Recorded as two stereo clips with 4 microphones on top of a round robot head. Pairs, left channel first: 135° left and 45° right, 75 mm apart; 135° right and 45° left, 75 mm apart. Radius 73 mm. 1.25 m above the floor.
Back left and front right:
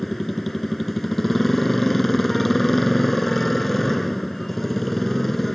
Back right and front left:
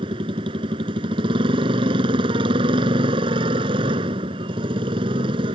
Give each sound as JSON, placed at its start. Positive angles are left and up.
{"t": 0.0, "sound": "a motorcycle", "azimuth_deg": 50}